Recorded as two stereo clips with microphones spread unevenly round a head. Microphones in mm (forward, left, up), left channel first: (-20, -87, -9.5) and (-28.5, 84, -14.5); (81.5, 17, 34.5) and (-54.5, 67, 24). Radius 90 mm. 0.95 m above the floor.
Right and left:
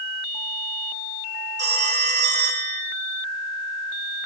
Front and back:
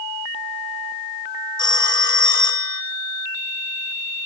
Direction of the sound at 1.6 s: 40° left.